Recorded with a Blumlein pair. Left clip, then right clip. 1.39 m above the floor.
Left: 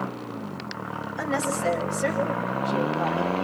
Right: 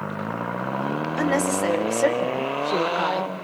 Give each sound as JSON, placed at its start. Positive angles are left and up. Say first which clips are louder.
{"t": 1.2, "sound": "a woman speaking", "louder": "right 3 dB", "azimuth_deg": -60, "distance_m": 5.0}